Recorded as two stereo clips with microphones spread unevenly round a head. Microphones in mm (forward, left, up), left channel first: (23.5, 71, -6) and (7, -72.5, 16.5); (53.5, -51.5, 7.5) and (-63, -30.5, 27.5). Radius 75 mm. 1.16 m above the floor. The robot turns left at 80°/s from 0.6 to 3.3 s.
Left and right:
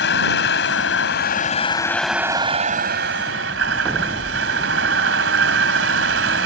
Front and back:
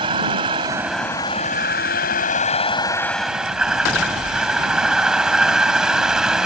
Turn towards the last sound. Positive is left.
turn(degrees=-105)